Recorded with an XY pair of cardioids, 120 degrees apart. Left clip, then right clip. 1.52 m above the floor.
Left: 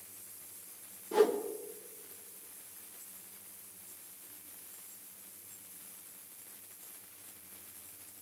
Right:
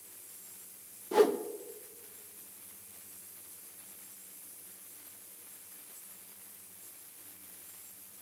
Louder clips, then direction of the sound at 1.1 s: Right 2 dB; 25° right.